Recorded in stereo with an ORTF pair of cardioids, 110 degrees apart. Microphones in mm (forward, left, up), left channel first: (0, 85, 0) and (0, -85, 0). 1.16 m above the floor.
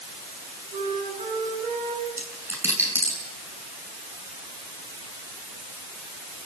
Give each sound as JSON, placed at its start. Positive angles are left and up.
{"t": 0.7, "sound": "a flute", "azimuth_deg": -45, "distance_m": 7.0}
{"t": 2.1, "sound": "a dropped coin", "azimuth_deg": -15, "distance_m": 7.5}